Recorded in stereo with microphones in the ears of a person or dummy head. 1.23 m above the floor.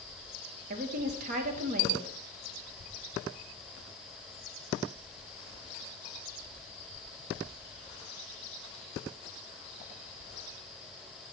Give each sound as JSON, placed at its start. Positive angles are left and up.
{"t": 0.7, "sound": "a woman speaking", "side_deg": -50, "distance_m": 1.1}